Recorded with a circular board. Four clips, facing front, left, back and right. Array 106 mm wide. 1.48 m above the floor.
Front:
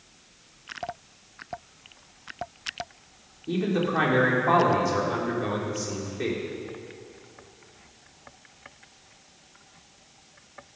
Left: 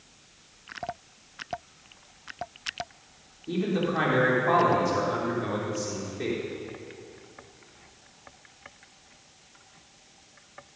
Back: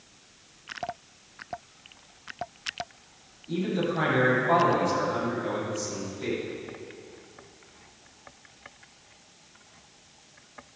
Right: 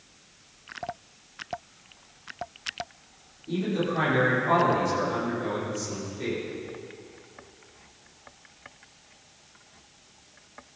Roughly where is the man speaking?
Ahead.